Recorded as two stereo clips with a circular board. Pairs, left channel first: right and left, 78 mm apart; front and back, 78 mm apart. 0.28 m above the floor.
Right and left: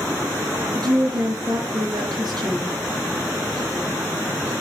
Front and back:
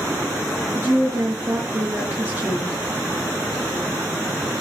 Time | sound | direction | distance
0.7 | a woman speaking | 120° left | 4.5 m